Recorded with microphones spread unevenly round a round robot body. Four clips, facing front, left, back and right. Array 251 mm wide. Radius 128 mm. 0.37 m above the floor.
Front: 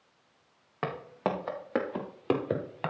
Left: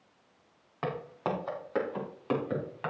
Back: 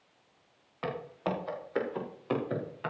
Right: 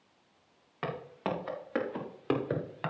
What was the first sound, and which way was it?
Footsteps, straight ahead.